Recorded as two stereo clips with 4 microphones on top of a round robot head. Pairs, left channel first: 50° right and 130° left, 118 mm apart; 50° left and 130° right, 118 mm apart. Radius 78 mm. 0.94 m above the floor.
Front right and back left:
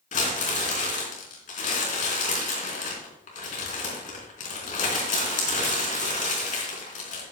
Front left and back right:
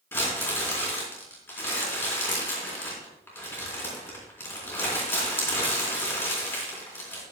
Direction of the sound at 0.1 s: 20° right.